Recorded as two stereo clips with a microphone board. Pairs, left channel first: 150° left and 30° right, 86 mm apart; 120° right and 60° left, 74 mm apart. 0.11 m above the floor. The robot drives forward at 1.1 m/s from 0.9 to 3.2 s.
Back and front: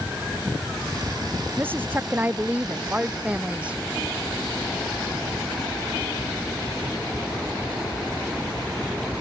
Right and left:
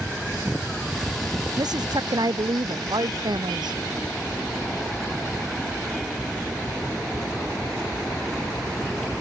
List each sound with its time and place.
1.6 s a woman speaking: 35° left; by 3.8 s 45° left